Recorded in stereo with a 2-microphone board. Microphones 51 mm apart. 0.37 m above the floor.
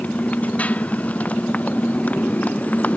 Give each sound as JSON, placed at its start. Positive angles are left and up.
{"t": 0.0, "sound": "a motorcycle", "side_deg": 30}